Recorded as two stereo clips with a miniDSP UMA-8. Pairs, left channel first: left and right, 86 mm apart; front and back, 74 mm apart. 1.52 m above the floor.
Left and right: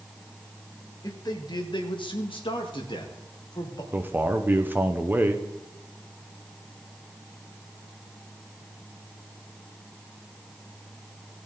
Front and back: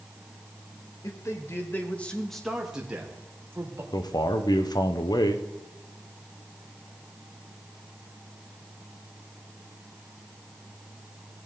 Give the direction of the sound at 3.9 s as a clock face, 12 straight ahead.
1 o'clock.